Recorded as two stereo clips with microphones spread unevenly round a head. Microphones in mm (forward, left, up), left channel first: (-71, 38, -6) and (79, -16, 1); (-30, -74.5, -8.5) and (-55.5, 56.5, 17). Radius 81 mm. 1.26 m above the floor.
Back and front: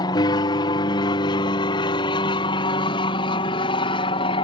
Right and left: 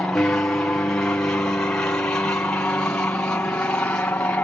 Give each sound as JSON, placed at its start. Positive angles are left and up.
{"t": 0.0, "sound": "an aircraft", "azimuth_deg": -150}